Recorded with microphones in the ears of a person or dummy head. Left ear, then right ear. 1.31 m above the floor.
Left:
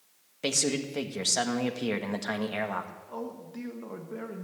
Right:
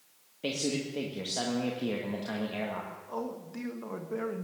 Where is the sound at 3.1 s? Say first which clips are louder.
Right 2 dB; 10° right (ahead or behind), 1.1 m.